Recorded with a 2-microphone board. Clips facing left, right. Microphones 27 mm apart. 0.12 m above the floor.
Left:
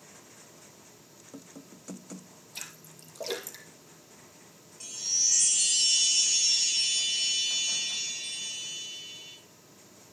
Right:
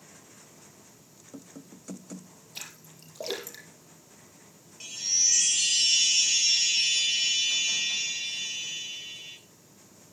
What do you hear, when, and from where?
2.5 s a splash: 15° right (ahead or behind), 2.5 m
4.8 s a chime: 30° right (ahead or behind), 1.2 m